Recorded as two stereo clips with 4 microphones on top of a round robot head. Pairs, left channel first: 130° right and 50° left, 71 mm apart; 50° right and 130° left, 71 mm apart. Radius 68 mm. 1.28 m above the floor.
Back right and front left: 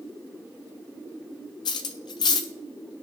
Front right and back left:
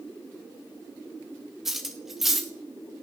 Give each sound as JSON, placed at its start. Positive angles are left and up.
{"t": 1.6, "sound": "cutlery clinking", "azimuth_deg": -145, "distance_m": 0.5}